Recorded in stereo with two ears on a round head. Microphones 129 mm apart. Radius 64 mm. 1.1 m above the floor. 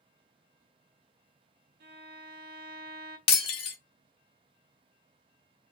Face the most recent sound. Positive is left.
turn(degrees=40)  # may be behind; listen again after turning